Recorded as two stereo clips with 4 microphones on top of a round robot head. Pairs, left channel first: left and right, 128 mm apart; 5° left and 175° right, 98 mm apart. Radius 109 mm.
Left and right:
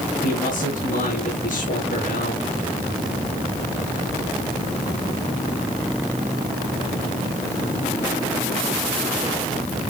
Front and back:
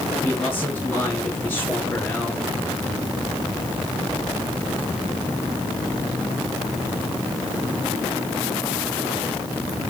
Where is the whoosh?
No whoosh in this recording.